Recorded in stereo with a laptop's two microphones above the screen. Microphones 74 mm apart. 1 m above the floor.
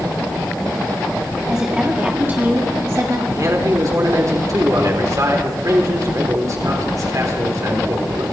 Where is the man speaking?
45° right (ahead or behind), 4 m.